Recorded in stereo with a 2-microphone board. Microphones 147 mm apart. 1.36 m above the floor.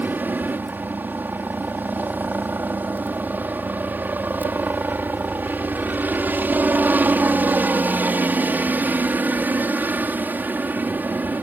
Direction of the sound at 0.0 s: 10° right (ahead or behind).